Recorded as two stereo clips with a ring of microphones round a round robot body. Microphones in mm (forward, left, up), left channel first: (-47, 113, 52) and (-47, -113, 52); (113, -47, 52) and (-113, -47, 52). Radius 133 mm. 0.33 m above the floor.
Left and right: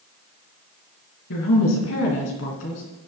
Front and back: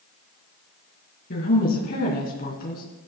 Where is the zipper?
I don't hear a zipper.